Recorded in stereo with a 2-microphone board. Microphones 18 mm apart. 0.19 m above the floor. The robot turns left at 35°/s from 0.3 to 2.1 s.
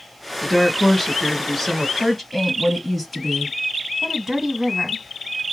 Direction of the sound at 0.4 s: 15° left (ahead or behind).